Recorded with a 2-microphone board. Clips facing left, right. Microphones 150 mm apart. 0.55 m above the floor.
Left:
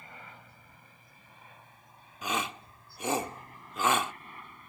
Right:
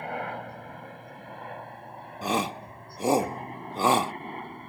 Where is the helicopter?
65° right (ahead or behind); by 4.7 s 55° right (ahead or behind).